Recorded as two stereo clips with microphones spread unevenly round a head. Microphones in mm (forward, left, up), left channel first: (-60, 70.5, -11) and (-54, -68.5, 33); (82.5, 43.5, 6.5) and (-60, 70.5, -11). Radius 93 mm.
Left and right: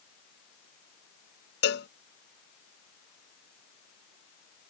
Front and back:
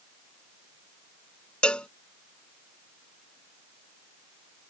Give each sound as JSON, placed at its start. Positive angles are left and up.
{"t": 1.6, "sound": "a cowbell", "azimuth_deg": 70}